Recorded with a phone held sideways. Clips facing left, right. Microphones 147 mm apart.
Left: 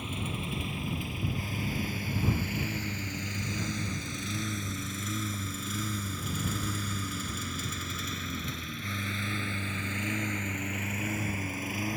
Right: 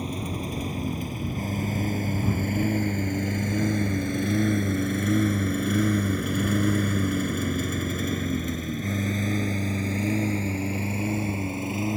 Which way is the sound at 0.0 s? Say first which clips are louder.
Right 6 dB; 40° right (ahead or behind).